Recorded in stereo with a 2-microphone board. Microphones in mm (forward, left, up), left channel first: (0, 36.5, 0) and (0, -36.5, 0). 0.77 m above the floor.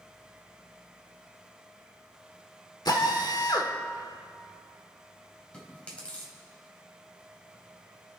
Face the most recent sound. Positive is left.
turn(degrees=15)  # may be behind; listen again after turning